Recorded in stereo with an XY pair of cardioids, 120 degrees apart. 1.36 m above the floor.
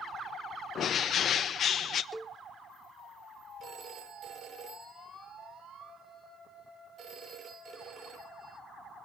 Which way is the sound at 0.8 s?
50° left.